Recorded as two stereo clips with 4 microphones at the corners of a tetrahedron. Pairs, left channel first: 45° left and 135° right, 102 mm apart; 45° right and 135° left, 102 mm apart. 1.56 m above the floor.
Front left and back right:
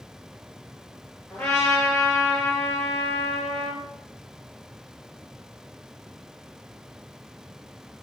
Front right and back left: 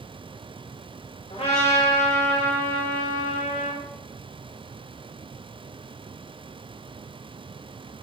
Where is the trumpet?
35° right, 2.5 m.